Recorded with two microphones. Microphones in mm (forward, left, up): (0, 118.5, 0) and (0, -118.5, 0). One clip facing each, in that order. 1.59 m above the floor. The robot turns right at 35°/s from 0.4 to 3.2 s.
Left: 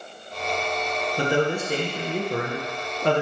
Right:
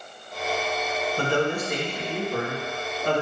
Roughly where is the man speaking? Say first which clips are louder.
Left 2 dB; ahead.